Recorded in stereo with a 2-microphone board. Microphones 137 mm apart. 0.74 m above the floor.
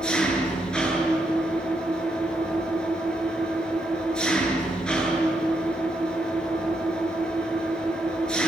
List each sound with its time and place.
0.0 s an engine running: 5° left (ahead or behind), 8 m